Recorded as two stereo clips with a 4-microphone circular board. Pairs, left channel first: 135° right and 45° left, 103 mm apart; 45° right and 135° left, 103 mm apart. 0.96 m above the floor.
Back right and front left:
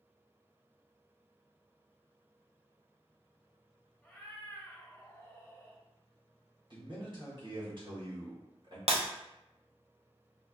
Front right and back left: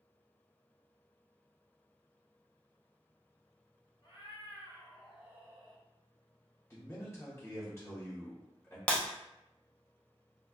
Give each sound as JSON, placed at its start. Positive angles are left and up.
{"t": 4.0, "sound": "a cat meowing", "azimuth_deg": -60, "distance_m": 1.2}
{"t": 6.7, "sound": "a man speaking", "azimuth_deg": 15, "distance_m": 1.3}
{"t": 8.9, "sound": "breaking glass", "azimuth_deg": 35, "distance_m": 0.5}